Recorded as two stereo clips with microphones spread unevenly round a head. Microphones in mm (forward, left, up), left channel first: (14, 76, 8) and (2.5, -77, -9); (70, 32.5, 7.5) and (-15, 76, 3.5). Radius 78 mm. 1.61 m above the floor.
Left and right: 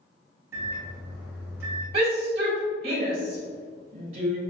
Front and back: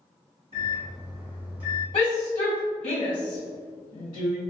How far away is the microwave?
About 0.9 m.